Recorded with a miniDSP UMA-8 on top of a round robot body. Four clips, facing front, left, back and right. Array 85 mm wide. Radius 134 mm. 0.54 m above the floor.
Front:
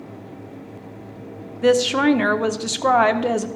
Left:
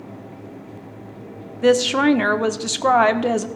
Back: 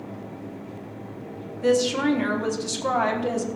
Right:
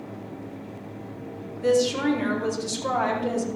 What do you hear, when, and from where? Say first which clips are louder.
1.6 s a woman speaking: left 6 dB, front 5 dB; 55° left, 1.3 m